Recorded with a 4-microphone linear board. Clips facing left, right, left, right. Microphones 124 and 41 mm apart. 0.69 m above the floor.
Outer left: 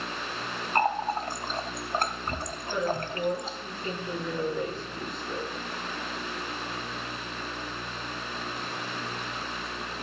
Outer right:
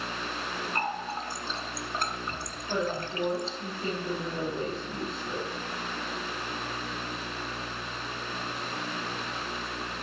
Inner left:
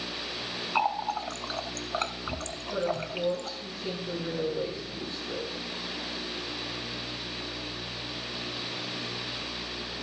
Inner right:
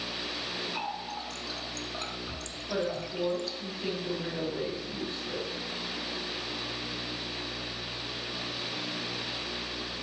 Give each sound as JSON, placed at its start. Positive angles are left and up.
{"t": 0.8, "sound": "a running tap", "side_deg": 45, "distance_m": 0.8}
{"t": 2.7, "sound": "a woman speaking", "side_deg": -30, "distance_m": 4.0}